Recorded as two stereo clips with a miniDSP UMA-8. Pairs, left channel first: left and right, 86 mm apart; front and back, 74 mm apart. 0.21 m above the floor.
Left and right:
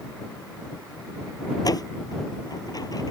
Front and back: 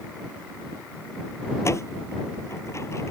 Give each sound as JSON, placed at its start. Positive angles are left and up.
{"t": 1.6, "sound": "a door slam", "azimuth_deg": 50}